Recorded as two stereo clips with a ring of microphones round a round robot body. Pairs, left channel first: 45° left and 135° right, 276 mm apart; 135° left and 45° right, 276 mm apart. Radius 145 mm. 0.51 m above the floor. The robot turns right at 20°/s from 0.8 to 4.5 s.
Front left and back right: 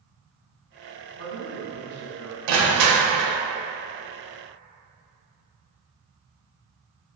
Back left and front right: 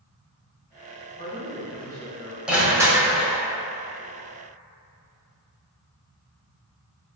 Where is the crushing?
130° right, 0.8 m; by 3.4 s 115° right, 0.8 m.